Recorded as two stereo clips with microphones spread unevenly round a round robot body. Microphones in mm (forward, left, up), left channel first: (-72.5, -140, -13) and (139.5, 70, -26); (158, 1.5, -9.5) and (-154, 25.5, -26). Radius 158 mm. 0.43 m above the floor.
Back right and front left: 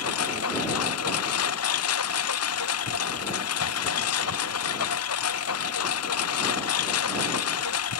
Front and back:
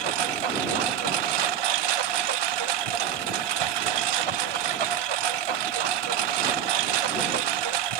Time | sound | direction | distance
0.0 | a lawn mower | 175° left | ?